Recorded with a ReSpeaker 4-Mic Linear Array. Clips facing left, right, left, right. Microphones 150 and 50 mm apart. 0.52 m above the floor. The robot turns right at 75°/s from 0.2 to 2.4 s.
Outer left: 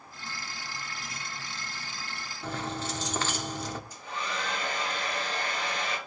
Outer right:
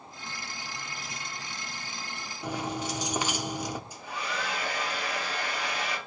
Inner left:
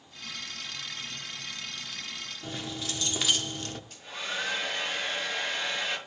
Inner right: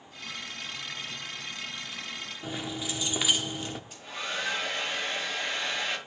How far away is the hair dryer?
About 7.5 m.